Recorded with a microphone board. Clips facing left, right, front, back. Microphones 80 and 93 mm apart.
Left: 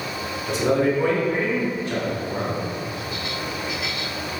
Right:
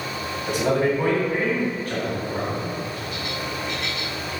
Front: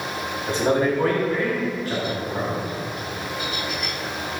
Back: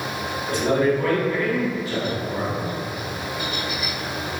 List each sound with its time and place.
0.5 s a man speaking: 65° right, 2.5 m; by 2.6 s 40° right, 5.5 m